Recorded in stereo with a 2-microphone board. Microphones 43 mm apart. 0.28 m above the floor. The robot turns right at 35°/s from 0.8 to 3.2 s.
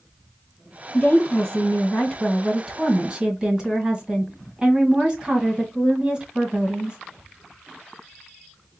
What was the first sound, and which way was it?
A woman speaking, 120° left.